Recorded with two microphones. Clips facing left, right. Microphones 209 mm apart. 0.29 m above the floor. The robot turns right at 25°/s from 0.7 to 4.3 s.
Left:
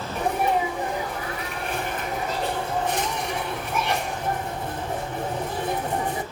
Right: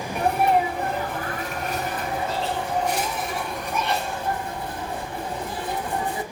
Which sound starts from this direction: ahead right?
A sneeze, at 0.1 s.